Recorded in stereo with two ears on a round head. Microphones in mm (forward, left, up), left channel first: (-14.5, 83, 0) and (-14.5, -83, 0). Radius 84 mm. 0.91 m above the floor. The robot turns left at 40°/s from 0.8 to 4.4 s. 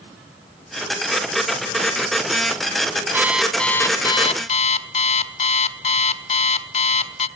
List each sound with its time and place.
3.1 s an alarm clock: 165° right, 1.0 m; by 7.3 s 145° left, 1.0 m